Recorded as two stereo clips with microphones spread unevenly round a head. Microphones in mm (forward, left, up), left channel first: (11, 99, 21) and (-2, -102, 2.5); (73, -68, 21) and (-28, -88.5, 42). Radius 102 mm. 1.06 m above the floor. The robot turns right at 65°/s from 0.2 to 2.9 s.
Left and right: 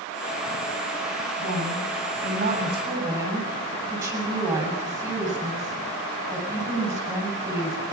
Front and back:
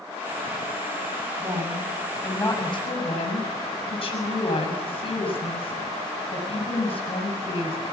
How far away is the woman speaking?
About 7.5 m.